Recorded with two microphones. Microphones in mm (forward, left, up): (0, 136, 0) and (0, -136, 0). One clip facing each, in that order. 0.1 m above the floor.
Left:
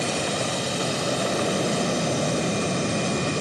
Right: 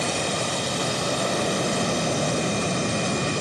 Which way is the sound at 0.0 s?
5° left (ahead or behind).